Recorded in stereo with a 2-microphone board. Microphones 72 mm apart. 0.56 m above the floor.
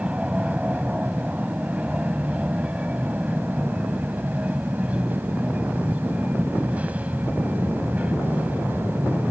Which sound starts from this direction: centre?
An aircraft, at 0.0 s.